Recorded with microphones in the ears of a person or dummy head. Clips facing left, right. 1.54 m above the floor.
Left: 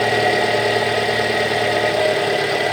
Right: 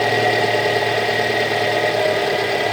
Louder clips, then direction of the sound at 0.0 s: Even; centre (ahead or behind).